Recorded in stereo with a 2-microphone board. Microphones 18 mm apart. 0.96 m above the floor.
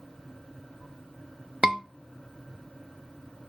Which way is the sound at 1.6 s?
50° right (ahead or behind).